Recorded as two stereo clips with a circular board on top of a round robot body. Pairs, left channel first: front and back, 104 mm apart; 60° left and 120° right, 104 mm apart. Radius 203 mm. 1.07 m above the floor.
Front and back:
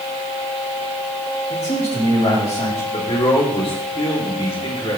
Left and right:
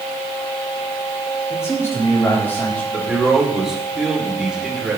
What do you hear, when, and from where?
1.5 s a man speaking: 5° right, 4 m; by 2.8 s 15° right, 3.5 m
2.9 s a man speaking: 35° right, 3.5 m